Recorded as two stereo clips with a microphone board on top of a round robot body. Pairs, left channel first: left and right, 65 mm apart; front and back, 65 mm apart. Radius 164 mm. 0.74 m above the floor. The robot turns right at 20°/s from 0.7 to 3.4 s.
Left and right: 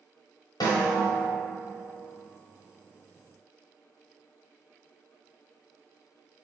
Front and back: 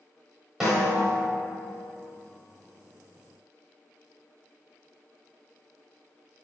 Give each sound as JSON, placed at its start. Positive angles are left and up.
{"t": 0.6, "sound": "a snare drum", "azimuth_deg": 95, "distance_m": 1.1}